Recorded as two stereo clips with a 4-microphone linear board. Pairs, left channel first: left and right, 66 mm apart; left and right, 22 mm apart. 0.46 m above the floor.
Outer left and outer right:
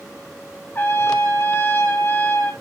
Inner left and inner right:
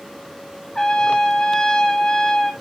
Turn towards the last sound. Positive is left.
turn(degrees=30)  # may be behind; listen again after turning